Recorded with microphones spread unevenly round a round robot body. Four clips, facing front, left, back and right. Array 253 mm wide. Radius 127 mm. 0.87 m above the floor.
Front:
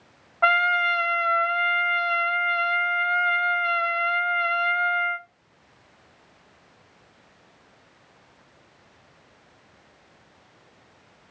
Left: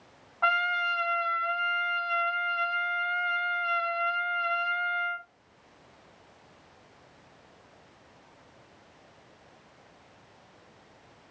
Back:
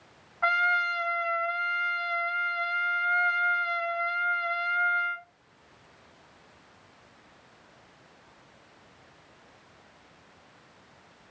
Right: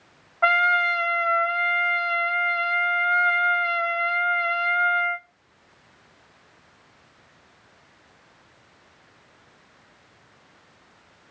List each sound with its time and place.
0.4 s a trumpet: 40° right, 1.5 m